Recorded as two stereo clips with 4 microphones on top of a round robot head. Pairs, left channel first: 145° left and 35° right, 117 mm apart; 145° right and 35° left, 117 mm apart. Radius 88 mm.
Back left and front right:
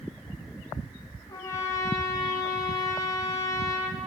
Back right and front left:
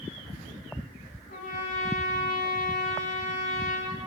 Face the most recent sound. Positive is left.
turn(degrees=-155)